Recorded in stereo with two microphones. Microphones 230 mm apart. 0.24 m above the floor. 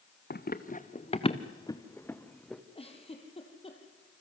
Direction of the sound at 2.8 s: 25° left (ahead or behind).